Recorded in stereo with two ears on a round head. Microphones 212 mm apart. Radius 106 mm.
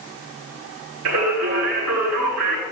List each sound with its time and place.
1.1 s singing: 75° right (ahead or behind), 9.5 m